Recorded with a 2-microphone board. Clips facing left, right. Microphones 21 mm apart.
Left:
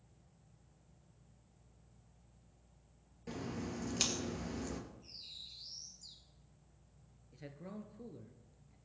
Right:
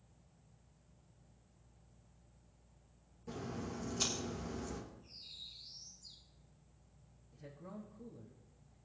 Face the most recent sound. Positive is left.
turn(degrees=45)  # may be behind; listen again after turning